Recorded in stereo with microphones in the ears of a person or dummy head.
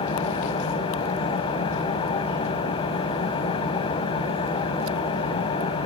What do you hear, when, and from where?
0.0 s an engine running: 35° left (ahead or behind), 3 m